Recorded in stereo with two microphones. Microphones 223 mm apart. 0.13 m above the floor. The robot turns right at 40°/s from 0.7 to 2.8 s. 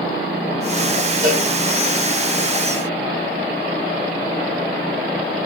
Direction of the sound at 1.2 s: 35° right (ahead or behind).